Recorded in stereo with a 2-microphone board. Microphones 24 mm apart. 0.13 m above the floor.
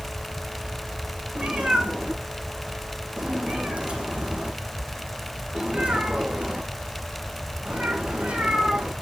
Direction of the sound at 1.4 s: 55° right (ahead or behind).